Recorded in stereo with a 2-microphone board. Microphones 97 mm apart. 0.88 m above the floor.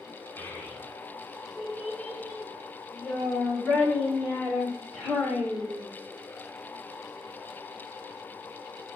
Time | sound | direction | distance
0.4 | a child speaking | 25° left (ahead or behind) | 1.5 m